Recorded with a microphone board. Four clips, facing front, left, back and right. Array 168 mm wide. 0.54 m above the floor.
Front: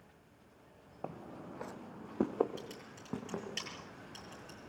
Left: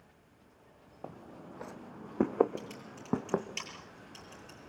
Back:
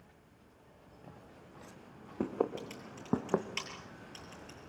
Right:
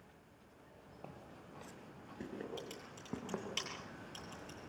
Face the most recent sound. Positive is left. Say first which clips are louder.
# left 4 dB, back 2 dB
turn(degrees=-160)